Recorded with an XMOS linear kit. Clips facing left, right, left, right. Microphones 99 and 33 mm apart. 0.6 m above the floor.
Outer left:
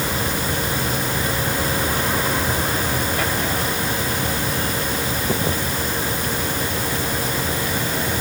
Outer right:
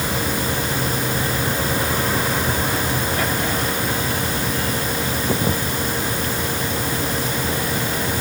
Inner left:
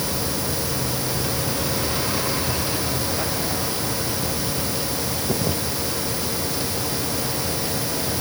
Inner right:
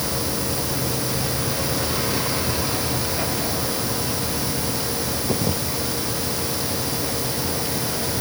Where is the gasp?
No gasp in this recording.